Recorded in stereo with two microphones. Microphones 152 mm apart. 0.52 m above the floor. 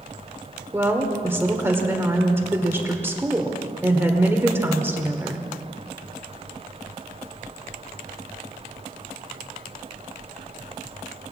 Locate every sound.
0.7 s a woman speaking: 15° right (ahead or behind), 1.6 m